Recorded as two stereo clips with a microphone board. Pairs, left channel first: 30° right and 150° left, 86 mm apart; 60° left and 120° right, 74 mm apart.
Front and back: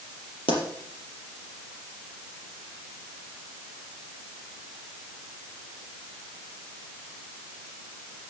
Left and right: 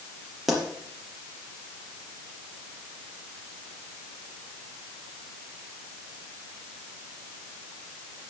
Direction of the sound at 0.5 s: 35° right.